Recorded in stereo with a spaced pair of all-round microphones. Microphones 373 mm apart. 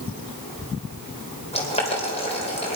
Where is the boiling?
15° left (ahead or behind), 3 m.